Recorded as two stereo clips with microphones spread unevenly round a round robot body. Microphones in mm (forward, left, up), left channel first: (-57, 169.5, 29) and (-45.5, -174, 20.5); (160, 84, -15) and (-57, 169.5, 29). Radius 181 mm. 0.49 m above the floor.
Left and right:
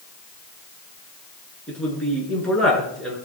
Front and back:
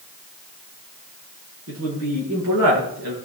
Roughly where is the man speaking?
Behind.